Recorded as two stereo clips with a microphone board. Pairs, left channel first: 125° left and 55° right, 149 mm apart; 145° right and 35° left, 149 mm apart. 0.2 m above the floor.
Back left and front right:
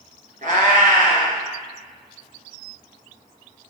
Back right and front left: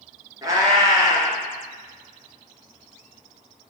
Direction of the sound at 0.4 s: 30° right.